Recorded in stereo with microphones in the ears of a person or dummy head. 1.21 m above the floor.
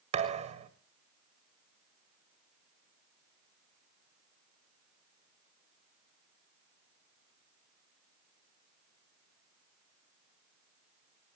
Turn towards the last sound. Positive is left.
turn(degrees=-35)  # may be behind; listen again after turning